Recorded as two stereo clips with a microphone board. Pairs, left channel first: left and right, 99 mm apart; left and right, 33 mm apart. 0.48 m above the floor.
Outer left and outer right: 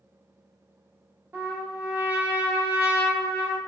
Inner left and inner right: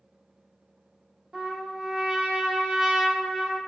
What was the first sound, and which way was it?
A trumpet, 20° right (ahead or behind).